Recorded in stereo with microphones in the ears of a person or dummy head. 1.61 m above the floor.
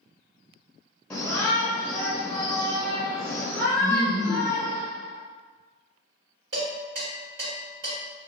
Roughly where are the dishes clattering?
Right.